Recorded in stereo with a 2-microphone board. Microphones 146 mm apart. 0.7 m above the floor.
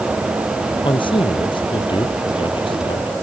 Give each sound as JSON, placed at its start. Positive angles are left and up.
{"t": 0.8, "sound": "a man speaking", "side_deg": 35}